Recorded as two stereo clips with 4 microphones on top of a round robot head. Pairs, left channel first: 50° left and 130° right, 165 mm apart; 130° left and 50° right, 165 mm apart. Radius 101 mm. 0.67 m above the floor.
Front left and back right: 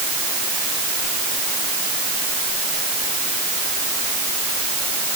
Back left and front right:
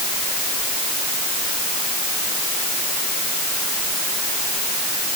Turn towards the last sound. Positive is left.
No sound to turn to.